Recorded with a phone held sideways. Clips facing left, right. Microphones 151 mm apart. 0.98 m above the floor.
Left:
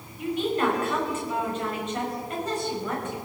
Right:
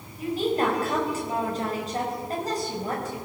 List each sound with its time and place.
0.2 s a woman speaking: 35° right (ahead or behind), 5 m